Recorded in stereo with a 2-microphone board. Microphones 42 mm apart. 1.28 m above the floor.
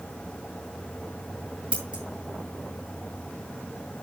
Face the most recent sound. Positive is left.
turn(degrees=-20)  # may be behind; listen again after turning